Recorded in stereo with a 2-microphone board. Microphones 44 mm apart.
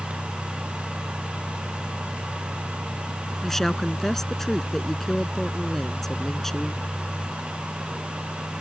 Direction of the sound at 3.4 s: 5° left (ahead or behind).